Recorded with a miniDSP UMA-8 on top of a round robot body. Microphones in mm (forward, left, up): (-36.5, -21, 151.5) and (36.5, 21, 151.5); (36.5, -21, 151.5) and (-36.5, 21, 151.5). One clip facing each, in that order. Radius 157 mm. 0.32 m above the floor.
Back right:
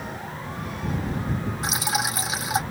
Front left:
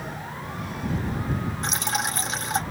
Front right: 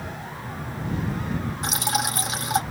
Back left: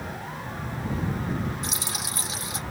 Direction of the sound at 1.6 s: 65° right.